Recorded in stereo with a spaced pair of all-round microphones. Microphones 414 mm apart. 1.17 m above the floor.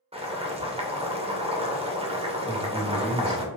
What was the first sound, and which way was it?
Boiling, 15° right (ahead or behind).